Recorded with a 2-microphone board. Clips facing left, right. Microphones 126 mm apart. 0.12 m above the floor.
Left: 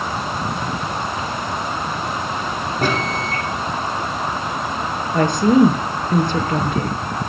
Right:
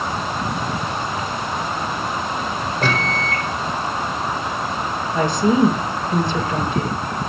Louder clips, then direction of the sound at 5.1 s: Left 3 dB; 55° left (ahead or behind).